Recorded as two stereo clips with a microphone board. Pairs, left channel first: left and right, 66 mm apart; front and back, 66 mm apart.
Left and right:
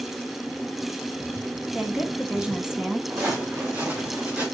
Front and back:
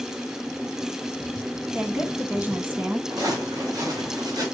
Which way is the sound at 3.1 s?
145° right.